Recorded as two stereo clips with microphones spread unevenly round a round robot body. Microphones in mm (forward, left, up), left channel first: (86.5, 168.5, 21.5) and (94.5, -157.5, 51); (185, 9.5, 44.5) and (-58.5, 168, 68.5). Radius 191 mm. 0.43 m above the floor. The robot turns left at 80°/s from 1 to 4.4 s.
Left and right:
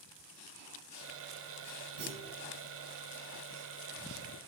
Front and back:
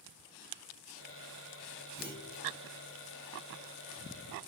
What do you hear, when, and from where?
2.0 s a clunk: 110° right, 4.5 m; by 2.5 s 145° right, 4.5 m